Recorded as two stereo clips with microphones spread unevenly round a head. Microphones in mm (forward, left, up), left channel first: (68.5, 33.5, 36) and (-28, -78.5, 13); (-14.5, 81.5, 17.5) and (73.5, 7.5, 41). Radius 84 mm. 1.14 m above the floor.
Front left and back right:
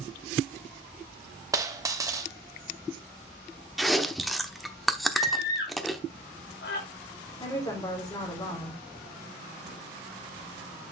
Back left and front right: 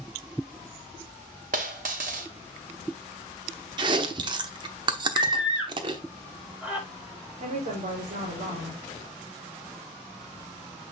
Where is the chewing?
30° right, 0.9 m.